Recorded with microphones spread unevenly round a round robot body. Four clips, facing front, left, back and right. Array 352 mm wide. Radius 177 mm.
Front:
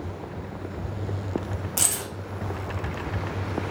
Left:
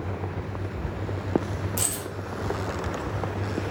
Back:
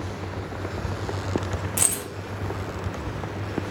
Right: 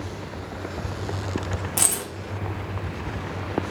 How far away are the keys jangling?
About 0.6 m.